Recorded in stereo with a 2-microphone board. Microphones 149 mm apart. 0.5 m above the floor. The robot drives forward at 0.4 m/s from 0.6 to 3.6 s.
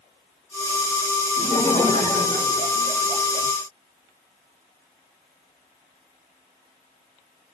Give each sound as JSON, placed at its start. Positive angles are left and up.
{"t": 1.4, "sound": "laughter", "side_deg": 40, "distance_m": 1.4}